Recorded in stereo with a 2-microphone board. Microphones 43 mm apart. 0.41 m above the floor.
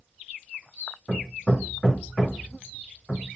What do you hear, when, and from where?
1.1 s hammering: 10° left (ahead or behind), 0.7 m